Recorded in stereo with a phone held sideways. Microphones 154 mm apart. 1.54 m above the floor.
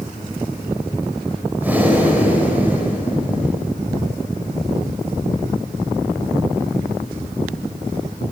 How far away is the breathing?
About 4 m.